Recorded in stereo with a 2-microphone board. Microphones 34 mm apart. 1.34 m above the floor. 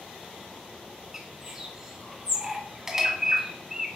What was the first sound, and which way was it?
A bird, 15° right (ahead or behind).